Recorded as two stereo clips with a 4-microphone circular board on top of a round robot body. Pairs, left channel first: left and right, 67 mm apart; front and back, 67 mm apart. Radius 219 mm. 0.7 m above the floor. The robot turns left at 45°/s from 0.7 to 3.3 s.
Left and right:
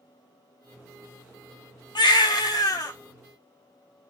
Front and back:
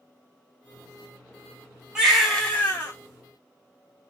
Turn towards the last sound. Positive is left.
turn(degrees=40)